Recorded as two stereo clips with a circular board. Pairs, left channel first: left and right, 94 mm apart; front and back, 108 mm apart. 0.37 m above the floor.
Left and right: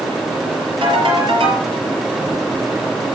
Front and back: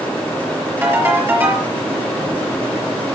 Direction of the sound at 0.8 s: 110° right.